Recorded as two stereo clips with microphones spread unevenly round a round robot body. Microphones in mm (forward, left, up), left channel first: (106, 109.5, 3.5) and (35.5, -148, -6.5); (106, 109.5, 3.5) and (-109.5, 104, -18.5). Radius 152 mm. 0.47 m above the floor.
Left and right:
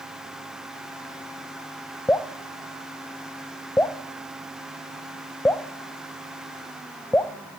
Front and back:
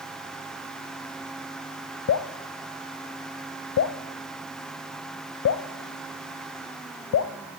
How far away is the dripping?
About 0.8 m.